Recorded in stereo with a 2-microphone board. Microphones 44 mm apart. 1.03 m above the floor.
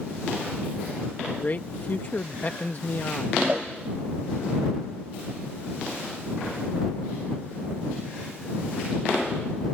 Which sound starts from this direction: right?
A cowbell, at 3.5 s.